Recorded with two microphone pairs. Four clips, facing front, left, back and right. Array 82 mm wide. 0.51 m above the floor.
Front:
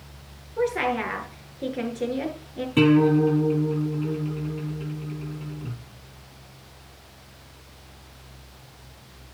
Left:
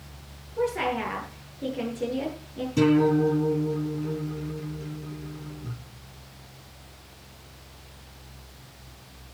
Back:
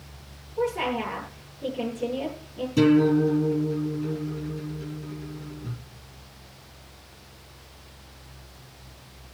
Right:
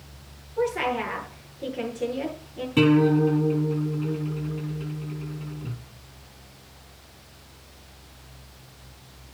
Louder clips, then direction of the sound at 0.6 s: Right 1 dB, front 2 dB; 5° right.